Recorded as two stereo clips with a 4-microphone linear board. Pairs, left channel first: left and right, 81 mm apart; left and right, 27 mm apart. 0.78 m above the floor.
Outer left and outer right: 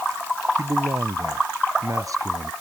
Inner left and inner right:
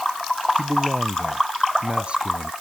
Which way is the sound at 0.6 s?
45° right (ahead or behind).